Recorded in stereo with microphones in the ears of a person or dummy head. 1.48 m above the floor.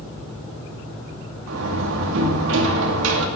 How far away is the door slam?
About 2 m.